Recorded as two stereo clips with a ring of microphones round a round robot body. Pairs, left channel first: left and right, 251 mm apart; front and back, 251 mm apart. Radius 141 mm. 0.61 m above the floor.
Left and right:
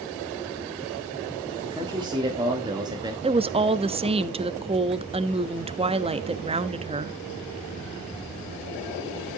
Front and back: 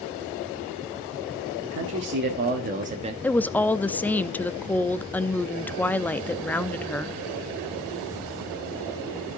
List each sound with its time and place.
1.6 s a man speaking: 160° right, 1.7 m; by 3.1 s 145° right, 1.1 m
3.2 s a woman speaking: 75° right, 0.5 m